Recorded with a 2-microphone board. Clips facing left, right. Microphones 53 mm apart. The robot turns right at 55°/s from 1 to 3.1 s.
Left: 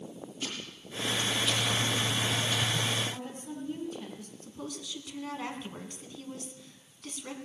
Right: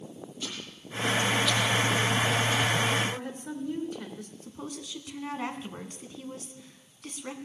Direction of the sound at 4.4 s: 15° right (ahead or behind).